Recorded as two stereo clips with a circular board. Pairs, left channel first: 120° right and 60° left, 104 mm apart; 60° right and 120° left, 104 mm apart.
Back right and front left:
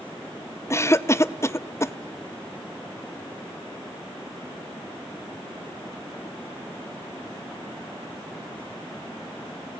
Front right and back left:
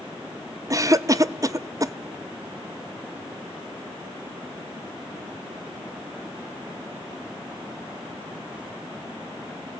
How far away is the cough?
About 0.7 m.